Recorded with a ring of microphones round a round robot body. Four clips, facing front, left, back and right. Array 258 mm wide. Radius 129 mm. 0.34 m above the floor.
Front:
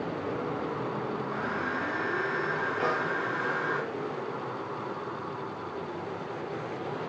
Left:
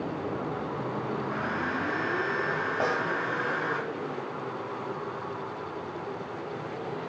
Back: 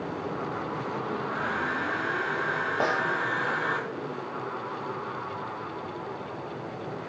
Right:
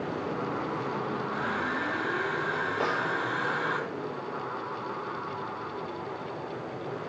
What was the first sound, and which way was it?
A hair dryer, 165° right.